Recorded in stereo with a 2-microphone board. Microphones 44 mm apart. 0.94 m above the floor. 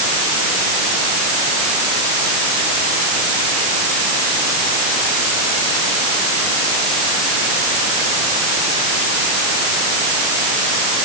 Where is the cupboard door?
No cupboard door in this recording.